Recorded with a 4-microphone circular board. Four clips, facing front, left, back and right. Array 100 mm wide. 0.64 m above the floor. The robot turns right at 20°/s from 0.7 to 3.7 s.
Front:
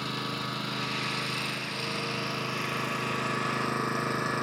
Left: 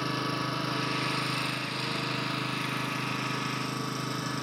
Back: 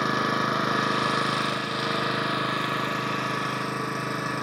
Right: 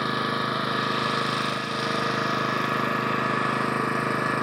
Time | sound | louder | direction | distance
0.0 | an engine running | right 5 dB, back 10 dB | 150° right | 1.6 m